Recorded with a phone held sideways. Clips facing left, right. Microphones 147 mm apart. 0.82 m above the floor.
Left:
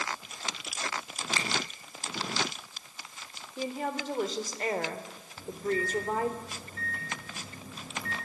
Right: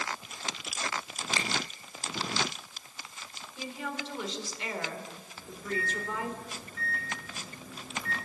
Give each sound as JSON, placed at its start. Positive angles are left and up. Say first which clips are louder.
{"t": 1.4, "sound": "a finger snap", "louder": "even", "side_deg": -25, "distance_m": 3.5}
{"t": 3.6, "sound": "a woman speaking", "louder": "left 5 dB", "side_deg": 45, "distance_m": 3.0}
{"t": 5.4, "sound": "a microwave", "louder": "left 6 dB", "side_deg": 40, "distance_m": 10.0}